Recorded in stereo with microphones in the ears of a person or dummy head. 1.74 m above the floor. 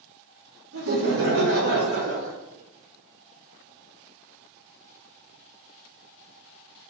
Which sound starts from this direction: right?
Laughter, at 0.7 s.